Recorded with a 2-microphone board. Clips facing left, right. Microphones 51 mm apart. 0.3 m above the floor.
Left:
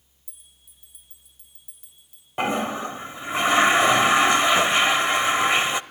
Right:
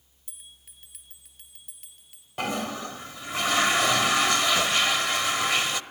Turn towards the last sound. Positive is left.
turn(degrees=25)  # may be behind; listen again after turning